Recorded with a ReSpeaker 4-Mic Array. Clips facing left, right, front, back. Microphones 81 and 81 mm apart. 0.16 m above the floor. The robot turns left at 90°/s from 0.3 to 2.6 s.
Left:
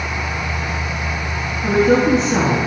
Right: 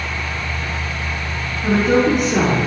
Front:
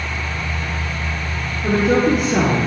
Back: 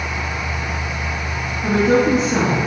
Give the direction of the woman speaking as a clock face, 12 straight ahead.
6 o'clock.